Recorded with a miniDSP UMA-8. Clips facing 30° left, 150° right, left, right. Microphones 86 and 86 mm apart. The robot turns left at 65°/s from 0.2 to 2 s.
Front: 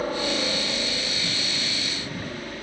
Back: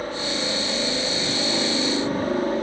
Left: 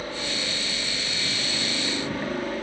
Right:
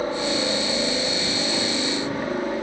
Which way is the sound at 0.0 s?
45° right.